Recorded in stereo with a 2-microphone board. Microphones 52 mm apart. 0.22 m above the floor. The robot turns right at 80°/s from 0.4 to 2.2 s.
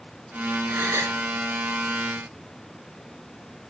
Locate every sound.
0.7 s a gasp: 135° right, 1.4 m; by 1.2 s 95° right, 1.4 m